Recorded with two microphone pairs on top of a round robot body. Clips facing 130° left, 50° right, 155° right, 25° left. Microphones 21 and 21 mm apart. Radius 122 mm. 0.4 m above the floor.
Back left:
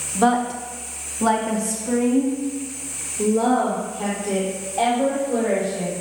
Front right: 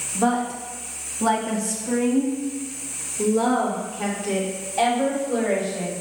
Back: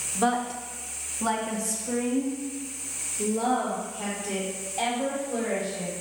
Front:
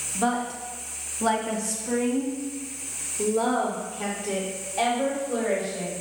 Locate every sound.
0.1 s a woman speaking: 130° left, 1.1 m; by 5.9 s 15° right, 3 m